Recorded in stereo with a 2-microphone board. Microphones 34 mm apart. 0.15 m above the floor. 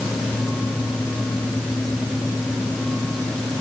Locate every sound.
Only background noise.